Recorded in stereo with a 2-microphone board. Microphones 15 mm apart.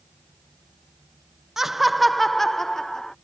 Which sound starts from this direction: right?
Laughter, at 1.6 s.